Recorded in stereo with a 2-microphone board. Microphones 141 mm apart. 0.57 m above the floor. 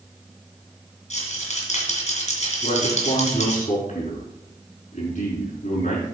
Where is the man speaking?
55° left (ahead or behind), 5.5 m.